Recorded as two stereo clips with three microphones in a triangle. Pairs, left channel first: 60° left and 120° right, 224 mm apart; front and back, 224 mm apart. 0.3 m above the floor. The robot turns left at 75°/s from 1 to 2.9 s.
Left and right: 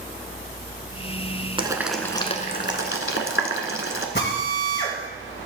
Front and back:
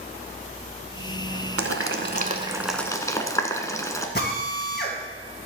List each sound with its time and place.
1.6 s boiling: 175° left, 1.0 m; by 4.0 s 75° left, 1.0 m
4.2 s a drill: 35° left, 2.5 m